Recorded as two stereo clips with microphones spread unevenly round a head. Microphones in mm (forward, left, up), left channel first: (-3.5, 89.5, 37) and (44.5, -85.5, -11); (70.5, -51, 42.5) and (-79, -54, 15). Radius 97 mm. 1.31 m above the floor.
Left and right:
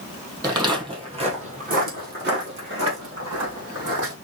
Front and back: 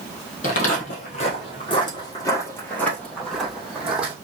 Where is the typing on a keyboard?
I don't hear typing on a keyboard.